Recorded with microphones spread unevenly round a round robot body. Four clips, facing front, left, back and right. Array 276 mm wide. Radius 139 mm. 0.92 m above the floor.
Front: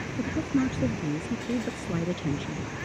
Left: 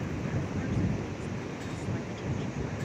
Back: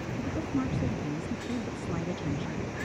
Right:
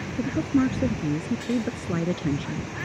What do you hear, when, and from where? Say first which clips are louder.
0.1 s a woman speaking: right 11 dB, front 5 dB; 75° right